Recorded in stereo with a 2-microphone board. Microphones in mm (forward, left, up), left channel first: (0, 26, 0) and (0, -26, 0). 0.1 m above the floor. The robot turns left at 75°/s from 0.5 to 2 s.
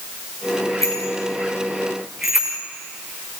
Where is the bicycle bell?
80° left, 6.5 m; by 2.6 s 10° right (ahead or behind), 6.5 m.